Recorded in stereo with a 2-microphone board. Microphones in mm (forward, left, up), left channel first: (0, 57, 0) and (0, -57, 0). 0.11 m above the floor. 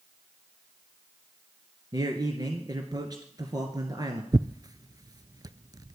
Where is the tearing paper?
35° right (ahead or behind), 0.5 m.